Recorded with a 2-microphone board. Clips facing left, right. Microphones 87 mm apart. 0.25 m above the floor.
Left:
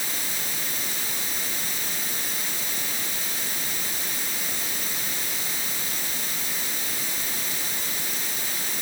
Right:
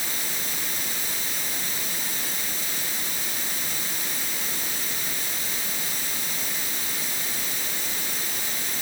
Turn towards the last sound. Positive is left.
No sound to turn to.